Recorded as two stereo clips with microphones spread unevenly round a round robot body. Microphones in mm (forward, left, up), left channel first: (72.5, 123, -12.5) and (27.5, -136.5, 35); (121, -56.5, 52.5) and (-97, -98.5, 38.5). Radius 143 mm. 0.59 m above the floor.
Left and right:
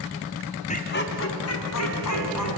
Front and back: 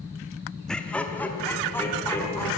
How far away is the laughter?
About 0.7 m.